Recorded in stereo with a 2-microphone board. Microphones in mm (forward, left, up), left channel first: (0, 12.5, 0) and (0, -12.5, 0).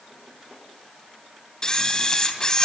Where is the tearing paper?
No tearing paper in this recording.